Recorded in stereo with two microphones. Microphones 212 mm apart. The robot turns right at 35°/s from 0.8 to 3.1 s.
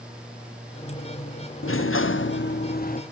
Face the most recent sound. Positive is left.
turn(degrees=140)